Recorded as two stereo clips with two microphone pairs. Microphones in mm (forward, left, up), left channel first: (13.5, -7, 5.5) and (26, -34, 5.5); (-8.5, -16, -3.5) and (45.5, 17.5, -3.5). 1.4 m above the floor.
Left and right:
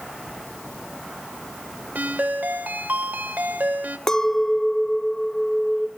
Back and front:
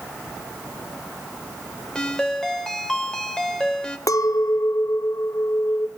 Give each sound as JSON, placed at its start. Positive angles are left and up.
{"t": 1.9, "sound": "a ringtone", "azimuth_deg": -70, "distance_m": 3.0}
{"t": 4.1, "sound": "a clink", "azimuth_deg": -175, "distance_m": 1.0}